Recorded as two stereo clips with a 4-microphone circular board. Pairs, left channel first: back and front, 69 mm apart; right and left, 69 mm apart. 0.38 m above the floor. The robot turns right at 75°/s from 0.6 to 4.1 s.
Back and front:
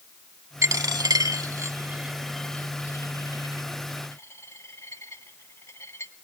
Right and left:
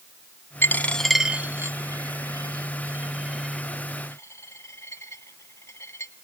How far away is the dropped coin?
About 0.8 m.